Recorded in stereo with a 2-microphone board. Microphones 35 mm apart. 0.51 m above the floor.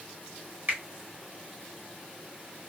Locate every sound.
0.7 s a finger snap: 60° right (ahead or behind), 1.5 m